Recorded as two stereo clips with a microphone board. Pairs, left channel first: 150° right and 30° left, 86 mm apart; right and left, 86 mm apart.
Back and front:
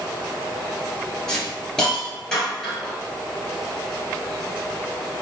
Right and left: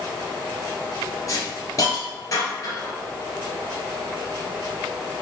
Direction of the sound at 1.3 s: 70° right.